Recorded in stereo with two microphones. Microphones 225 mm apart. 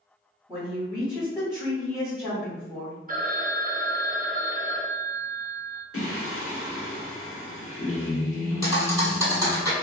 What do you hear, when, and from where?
0.5 s a woman speaking: 15° right (ahead or behind), 1.7 m
3.1 s a phone ringing: 40° right (ahead or behind), 0.6 m
5.9 s singing: 80° left, 0.8 m
8.6 s a thud: 15° right (ahead or behind), 1.7 m